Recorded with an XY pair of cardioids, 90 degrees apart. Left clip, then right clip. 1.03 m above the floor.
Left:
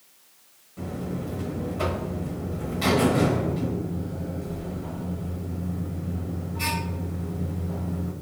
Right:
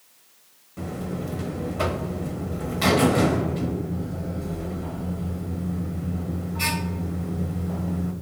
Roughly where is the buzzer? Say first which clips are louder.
Right 1 dB; ahead right.